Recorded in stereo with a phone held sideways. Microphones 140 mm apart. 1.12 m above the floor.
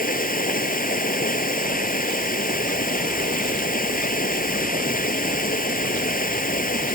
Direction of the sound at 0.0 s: 85° left.